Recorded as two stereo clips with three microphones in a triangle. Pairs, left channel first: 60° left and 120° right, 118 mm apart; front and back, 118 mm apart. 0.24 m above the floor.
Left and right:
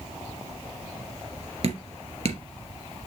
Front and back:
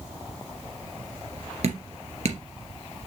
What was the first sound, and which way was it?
Dripping, 155° right.